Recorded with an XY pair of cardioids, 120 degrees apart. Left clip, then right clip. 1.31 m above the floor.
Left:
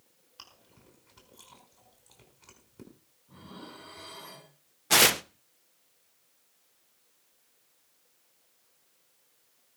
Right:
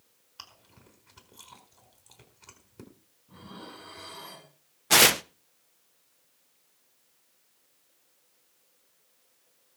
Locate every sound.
0.4 s chewing: 15° right, 4.5 m
3.3 s dishes clattering: 5° right, 8 m
4.9 s tearing paper: 10° right, 0.5 m